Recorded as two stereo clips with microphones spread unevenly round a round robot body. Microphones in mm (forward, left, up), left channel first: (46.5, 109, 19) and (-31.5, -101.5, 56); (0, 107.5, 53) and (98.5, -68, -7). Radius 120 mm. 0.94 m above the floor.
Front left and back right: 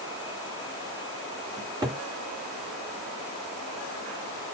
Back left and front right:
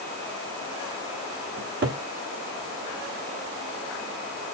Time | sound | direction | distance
1.6 | a cupboard door | 35° right | 1.5 m